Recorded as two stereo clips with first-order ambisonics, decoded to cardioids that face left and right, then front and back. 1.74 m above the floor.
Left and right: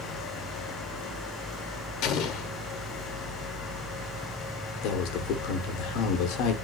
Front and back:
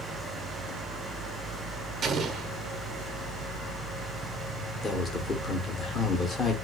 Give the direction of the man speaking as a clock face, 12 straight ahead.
10 o'clock.